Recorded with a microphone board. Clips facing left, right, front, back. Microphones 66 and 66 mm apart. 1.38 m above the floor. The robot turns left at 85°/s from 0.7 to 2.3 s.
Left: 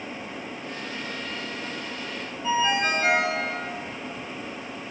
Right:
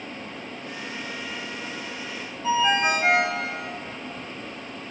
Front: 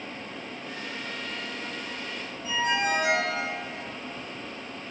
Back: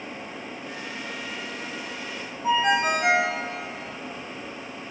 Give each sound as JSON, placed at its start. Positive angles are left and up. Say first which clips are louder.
{"t": 2.4, "sound": "a ringtone", "louder": "right 2 dB, back 5 dB", "azimuth_deg": -160, "distance_m": 3.0}